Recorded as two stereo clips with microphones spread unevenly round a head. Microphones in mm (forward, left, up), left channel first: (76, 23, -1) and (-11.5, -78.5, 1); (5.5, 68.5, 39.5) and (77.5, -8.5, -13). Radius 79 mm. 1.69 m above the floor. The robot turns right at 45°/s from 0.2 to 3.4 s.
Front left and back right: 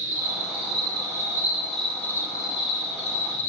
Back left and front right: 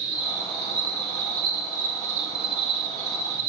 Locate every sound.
0.0 s an insect: 110° right, 2.5 m; by 3.5 s 30° left, 2.5 m